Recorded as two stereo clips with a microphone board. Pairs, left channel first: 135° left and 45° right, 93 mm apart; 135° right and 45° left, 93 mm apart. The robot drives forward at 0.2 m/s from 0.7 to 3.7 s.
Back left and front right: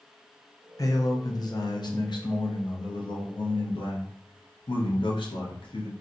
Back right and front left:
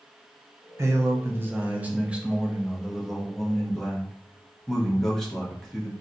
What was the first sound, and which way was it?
A man speaking, 95° left.